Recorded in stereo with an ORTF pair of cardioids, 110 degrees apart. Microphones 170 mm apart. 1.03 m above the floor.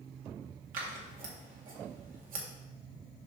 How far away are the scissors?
About 1.9 m.